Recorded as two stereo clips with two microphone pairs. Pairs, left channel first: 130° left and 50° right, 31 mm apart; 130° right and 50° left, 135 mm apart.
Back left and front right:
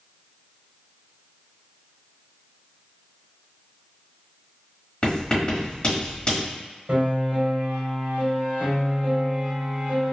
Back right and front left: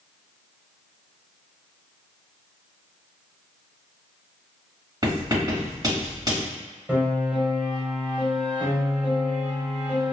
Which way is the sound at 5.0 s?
95° left.